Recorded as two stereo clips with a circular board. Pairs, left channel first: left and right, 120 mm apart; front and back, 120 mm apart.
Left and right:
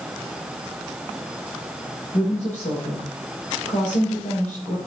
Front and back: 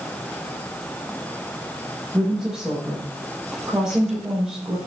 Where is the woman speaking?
95° left, 6 m.